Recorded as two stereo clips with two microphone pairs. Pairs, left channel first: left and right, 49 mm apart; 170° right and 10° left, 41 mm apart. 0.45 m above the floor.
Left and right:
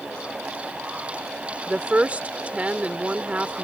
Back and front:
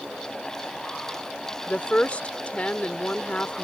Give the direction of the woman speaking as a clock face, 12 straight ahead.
4 o'clock.